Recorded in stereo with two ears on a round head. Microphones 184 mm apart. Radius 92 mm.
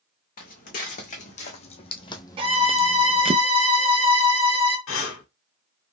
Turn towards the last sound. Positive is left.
turn(degrees=65)  # may be behind; listen again after turning